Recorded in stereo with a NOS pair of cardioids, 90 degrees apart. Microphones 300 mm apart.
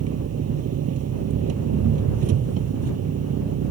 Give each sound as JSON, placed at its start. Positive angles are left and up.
{"t": 0.0, "sound": "an engine running", "azimuth_deg": -60}